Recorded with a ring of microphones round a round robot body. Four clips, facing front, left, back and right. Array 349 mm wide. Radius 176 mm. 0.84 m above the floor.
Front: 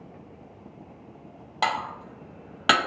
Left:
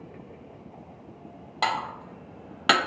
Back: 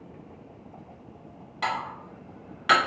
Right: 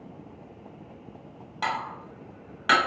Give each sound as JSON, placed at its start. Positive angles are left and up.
{"t": 1.6, "sound": "dishes clattering", "azimuth_deg": 30, "distance_m": 0.7}